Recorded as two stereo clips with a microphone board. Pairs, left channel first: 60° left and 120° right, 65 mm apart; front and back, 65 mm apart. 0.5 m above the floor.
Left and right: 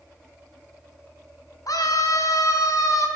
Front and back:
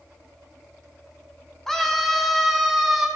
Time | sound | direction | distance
1.7 | a scream | 80° left | 4 m